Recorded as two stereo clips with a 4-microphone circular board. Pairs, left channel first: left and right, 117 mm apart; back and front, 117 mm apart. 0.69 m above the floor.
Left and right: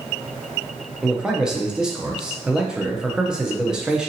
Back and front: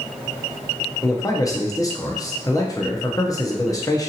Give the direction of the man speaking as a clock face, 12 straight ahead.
6 o'clock.